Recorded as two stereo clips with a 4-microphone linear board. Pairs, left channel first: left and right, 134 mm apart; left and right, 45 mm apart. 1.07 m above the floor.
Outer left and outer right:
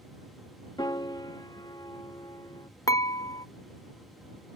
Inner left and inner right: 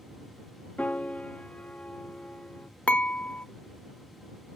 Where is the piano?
35° left (ahead or behind).